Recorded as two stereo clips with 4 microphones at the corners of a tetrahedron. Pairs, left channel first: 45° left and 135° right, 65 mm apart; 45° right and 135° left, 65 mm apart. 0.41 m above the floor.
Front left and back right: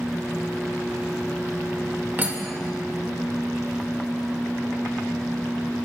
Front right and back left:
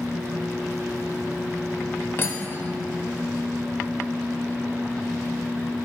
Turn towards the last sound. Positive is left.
turn(degrees=-80)